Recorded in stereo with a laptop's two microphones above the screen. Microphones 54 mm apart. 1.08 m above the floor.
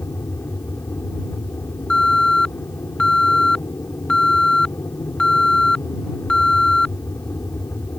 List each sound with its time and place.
0.0 s an aircraft: 55° left (ahead or behind)
1.9 s an alarm: 15° left (ahead or behind)